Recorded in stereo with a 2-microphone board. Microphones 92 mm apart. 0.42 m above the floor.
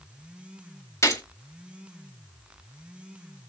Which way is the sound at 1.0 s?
30° left (ahead or behind).